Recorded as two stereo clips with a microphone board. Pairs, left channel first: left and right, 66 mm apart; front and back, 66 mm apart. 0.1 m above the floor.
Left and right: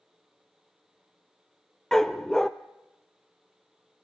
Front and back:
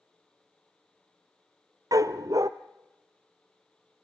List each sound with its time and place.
1.9 s a dog barking: 170° left, 0.8 m